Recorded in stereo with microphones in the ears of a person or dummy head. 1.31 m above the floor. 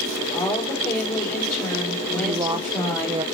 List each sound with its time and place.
0.3 s a woman speaking: 20° left (ahead or behind), 3.5 m
2.1 s a woman speaking: 20° right (ahead or behind), 0.5 m